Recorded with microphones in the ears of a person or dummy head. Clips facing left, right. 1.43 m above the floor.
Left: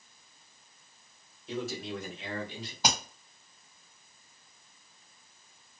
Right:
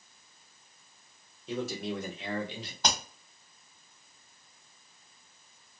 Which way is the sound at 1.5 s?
70° right (ahead or behind).